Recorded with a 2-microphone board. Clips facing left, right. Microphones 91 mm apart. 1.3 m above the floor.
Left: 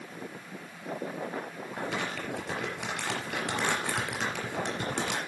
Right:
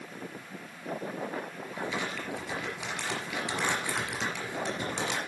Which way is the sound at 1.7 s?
55° left (ahead or behind).